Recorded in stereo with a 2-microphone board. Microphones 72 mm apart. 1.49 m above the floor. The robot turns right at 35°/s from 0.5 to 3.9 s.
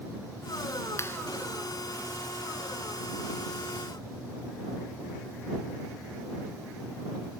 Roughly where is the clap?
Left.